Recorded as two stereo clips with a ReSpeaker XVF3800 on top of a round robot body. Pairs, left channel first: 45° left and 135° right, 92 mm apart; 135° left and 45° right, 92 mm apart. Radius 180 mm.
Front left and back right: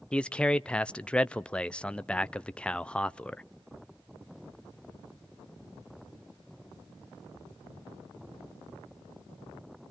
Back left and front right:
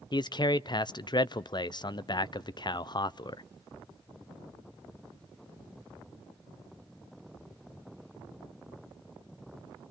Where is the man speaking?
120° left, 0.8 m.